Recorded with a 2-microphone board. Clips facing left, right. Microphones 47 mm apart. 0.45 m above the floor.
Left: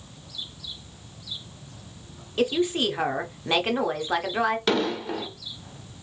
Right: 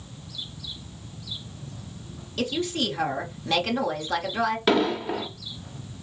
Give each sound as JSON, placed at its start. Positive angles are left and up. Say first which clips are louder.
{"t": 2.4, "sound": "a woman speaking", "louder": "left 4 dB", "side_deg": 20, "distance_m": 0.7}
{"t": 4.7, "sound": "an explosion", "louder": "right 2 dB", "side_deg": -10, "distance_m": 0.8}